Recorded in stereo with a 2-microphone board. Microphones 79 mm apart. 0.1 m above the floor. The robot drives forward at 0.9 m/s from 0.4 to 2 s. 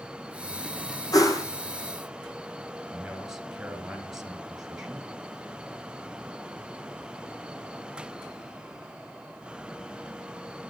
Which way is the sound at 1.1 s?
50° left (ahead or behind).